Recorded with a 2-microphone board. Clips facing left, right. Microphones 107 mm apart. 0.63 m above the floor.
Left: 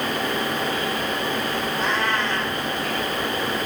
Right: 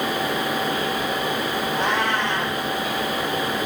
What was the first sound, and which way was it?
A cat meowing, 65° right (ahead or behind).